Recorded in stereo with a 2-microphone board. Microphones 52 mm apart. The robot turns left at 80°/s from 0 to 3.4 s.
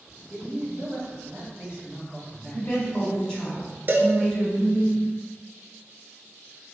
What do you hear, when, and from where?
0.3 s a man speaking: 25° right, 1.4 m; by 3.1 s 115° left, 1.4 m
2.5 s a woman speaking: 25° left (ahead or behind), 1.3 m; by 4.9 s 5° left (ahead or behind), 1.3 m
3.9 s a cowbell: 40° right (ahead or behind), 0.6 m